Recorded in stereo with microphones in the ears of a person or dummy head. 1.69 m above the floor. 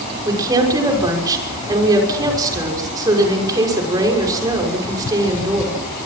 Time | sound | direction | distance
0.2 | a woman speaking | 20° right (ahead or behind) | 6 m